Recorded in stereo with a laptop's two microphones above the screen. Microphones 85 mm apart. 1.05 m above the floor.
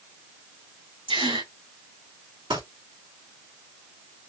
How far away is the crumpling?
About 3 m.